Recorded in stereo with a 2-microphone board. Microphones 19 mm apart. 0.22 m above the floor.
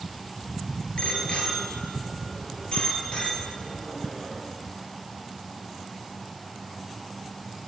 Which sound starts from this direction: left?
A bicycle bell, at 1.0 s.